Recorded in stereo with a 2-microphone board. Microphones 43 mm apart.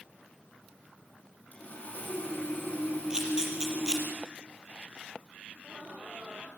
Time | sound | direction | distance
1.5 | sawing | 40° left (ahead or behind) | 8 m
3.1 | a camera shutter | 15° right (ahead or behind) | 6 m
5.5 | laughter | 45° right (ahead or behind) | 9 m